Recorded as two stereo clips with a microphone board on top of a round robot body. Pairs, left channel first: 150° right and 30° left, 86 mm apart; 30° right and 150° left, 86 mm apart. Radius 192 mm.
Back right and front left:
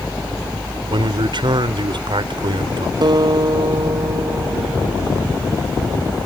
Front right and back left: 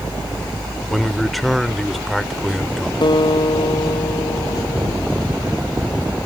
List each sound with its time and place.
0.9 s a man speaking: 60° left
3.0 s a guitar: 5° right